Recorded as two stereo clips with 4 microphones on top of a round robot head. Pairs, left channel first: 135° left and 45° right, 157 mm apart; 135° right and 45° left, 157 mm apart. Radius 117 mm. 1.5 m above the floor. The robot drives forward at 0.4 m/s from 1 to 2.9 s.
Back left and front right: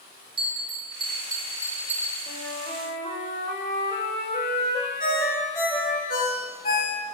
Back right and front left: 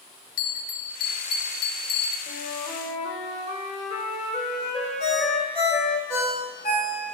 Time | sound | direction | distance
0.4 | a bell | 105° right | 0.9 m
2.3 | a flute | 175° right | 1.4 m
5.0 | a ringtone | 175° left | 2.5 m